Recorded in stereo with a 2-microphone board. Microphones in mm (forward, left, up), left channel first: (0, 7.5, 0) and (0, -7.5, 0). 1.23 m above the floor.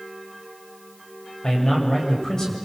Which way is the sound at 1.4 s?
40° left (ahead or behind).